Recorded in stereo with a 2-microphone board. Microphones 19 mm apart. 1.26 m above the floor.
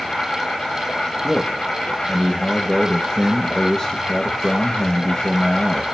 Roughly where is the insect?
Left.